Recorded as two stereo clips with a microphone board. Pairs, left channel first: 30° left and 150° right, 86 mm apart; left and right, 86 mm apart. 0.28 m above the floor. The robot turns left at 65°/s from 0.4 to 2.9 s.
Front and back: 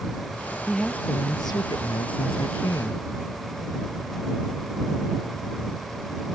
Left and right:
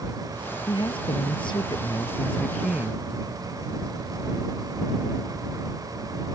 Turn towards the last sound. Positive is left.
turn(degrees=-25)